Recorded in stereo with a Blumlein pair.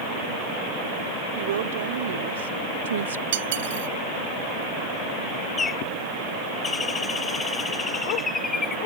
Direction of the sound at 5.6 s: 15° left.